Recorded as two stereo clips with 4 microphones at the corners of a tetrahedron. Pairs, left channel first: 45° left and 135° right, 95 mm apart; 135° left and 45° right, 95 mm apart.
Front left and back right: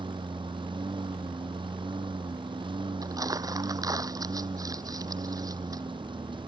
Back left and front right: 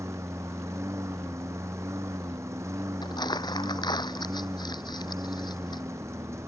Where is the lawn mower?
105° right.